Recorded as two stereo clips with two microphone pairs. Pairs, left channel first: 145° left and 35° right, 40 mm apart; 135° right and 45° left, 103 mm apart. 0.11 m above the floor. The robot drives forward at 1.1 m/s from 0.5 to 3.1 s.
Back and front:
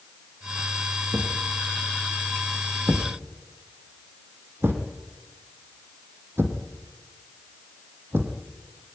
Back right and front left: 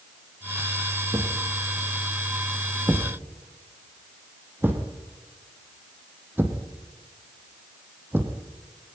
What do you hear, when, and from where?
1.1 s a thud: 10° right, 4.5 m; by 8.4 s 20° right, 2.5 m